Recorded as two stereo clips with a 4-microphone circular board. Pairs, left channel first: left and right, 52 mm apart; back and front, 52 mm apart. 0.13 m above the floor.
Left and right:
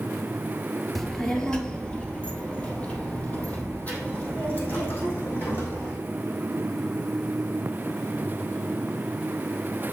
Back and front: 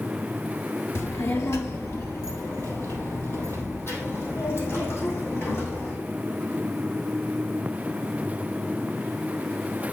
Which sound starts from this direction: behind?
A child speaking, at 0.9 s.